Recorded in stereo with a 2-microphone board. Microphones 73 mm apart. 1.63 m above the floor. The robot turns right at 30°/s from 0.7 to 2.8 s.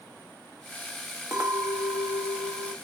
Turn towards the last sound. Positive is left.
turn(degrees=-25)